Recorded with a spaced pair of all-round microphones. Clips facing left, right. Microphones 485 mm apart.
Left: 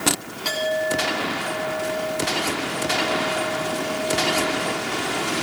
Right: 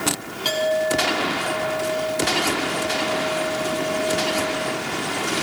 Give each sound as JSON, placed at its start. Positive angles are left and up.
{"t": 0.5, "sound": "a clink", "side_deg": -50, "distance_m": 7.0}